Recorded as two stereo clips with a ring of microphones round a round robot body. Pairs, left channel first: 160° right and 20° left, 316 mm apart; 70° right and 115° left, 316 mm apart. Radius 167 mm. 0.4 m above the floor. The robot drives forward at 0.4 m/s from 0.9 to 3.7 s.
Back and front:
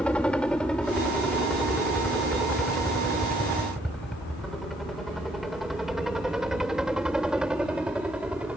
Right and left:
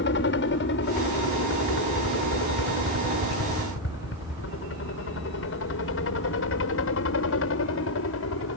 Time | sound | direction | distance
0.0 | a helicopter | 75° right | ?